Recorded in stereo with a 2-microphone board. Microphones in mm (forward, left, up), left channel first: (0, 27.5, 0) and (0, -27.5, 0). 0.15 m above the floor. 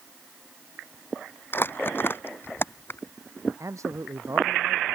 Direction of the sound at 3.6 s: 65° right (ahead or behind).